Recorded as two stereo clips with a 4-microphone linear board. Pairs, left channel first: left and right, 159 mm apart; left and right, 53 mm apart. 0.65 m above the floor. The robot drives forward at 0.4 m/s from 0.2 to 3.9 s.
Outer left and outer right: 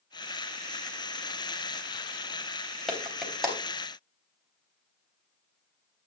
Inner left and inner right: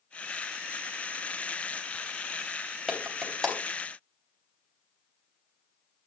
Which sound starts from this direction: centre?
A clap, at 2.9 s.